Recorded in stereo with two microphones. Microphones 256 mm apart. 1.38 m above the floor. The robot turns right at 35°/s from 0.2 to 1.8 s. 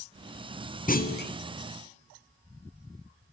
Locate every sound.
0.9 s a clunk: 30° left (ahead or behind), 0.6 m; by 1.3 s 40° left (ahead or behind), 0.6 m